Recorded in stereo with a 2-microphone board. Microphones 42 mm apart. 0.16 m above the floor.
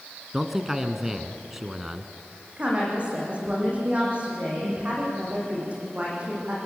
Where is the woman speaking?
30° right (ahead or behind), 9 m.